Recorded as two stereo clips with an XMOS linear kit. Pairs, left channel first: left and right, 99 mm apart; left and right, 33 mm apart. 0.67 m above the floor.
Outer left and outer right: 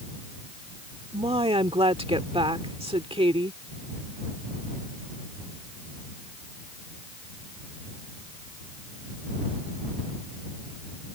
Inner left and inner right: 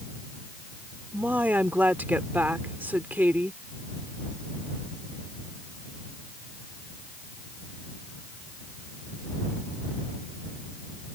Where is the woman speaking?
65° right (ahead or behind).